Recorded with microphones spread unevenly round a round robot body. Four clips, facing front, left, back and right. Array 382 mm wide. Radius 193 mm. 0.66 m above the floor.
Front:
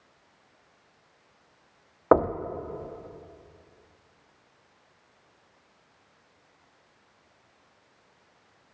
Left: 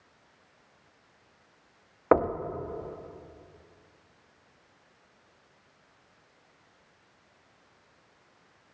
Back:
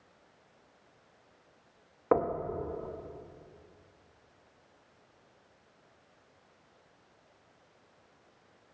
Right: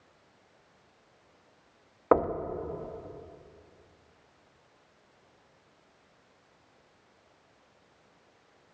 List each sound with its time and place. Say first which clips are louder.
2.1 s knocking: left 1 dB, front 7 dB; 20° left, 1.3 m